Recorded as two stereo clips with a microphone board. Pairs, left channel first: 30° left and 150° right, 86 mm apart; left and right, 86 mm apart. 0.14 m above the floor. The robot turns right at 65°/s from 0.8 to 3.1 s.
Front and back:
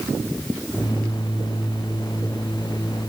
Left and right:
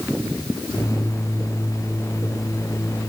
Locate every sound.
Only background noise.